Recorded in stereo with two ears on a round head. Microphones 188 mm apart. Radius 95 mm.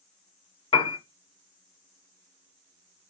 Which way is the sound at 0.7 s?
25° left (ahead or behind).